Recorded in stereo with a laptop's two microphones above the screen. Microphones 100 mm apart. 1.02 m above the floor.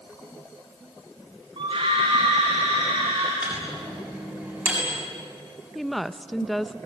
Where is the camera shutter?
No camera shutter in this recording.